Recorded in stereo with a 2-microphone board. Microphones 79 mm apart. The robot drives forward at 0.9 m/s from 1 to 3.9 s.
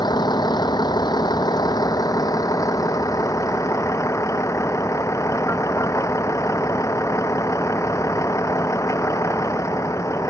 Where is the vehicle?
70° left (ahead or behind); by 10.3 s 45° left (ahead or behind).